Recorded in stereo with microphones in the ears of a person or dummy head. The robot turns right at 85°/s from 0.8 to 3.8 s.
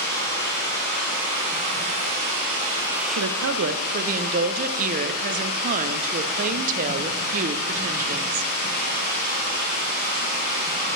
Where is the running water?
160° left, 3 m; by 11.0 s 55° left, 3 m.